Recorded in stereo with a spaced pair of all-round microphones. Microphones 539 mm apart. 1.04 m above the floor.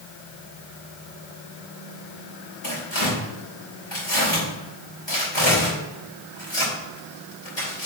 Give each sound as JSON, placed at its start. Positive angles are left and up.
{"t": 2.6, "sound": "tearing paper", "side_deg": 50, "distance_m": 4.0}